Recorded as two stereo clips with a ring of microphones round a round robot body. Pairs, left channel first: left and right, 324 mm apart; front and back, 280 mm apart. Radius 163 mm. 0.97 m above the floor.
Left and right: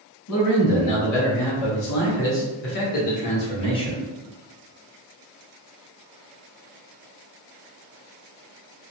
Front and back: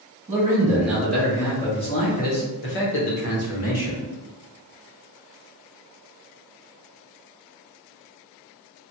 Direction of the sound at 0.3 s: 105° left.